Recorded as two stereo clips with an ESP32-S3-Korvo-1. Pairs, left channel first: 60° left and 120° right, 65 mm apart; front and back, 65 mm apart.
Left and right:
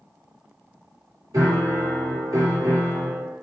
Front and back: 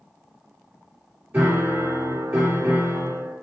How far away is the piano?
About 1.9 m.